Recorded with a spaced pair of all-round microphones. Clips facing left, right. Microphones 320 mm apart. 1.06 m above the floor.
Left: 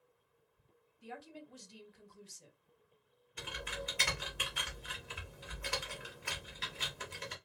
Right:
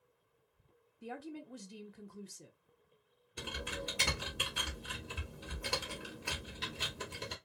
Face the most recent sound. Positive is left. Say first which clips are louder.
# right 2 dB
turn(degrees=-50)  # may be behind; listen again after turning